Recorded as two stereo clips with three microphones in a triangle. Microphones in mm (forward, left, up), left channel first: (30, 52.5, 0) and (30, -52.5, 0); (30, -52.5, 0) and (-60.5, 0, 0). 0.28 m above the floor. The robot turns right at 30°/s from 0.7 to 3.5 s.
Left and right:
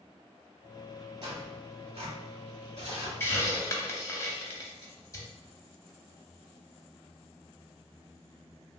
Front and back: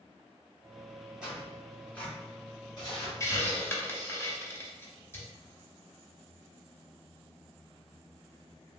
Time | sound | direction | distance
1.2 | tearing paper | 130° right | 1.7 m
3.2 | a hiss | 25° left | 0.6 m